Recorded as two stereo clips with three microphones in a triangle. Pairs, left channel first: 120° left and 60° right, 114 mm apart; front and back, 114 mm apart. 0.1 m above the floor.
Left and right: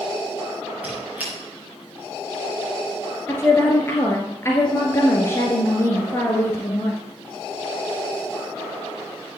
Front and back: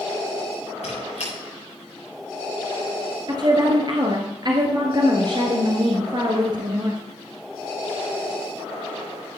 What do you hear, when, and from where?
0.8 s a squeak: 15° left, 5 m
3.3 s a woman speaking: 175° left, 1.6 m